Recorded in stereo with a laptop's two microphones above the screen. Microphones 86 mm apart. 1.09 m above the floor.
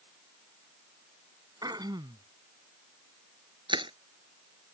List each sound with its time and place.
1.6 s throat clearing: 50° right (ahead or behind)
3.7 s crushing: 70° right (ahead or behind)